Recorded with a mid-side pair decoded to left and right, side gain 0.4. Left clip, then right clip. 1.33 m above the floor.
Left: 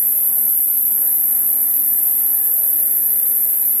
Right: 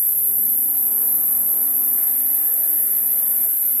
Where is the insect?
35° left, 2 m.